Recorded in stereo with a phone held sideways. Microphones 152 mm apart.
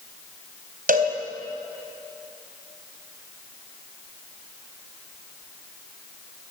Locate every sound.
0.9 s a cowbell: 70° right (ahead or behind), 3.5 m